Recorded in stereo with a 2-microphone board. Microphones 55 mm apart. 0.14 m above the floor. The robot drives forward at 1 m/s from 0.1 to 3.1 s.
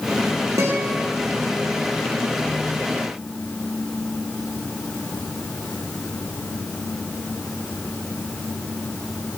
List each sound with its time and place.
0.6 s a guitar: 70° right (ahead or behind), 8.5 m